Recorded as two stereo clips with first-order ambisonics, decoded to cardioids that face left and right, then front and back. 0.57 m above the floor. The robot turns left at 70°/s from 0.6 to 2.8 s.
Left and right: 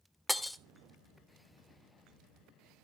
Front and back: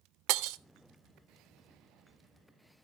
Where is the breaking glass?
Straight behind, 0.7 m.